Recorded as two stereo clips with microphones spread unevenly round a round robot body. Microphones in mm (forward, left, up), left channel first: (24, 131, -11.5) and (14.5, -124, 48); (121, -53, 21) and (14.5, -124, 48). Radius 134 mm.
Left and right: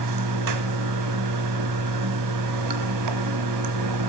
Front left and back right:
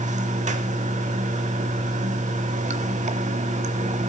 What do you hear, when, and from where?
0.0 s running water: 115° right, 1.3 m